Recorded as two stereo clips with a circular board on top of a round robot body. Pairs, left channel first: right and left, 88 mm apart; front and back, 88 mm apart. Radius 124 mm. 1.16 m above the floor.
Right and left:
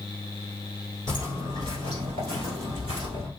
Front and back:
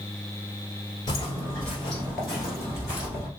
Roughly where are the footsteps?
Ahead left.